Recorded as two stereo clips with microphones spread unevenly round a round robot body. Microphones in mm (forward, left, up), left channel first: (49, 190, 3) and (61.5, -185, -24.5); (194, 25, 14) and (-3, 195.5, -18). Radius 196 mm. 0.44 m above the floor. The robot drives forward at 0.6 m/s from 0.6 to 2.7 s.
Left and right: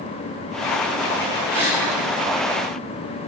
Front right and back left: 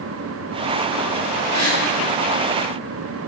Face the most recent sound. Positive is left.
turn(degrees=-175)